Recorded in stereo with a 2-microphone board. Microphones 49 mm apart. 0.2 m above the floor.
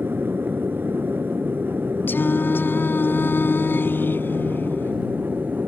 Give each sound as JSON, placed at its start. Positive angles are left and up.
{"t": 0.0, "sound": "an aircraft", "side_deg": -40}
{"t": 2.1, "sound": "singing", "side_deg": 45}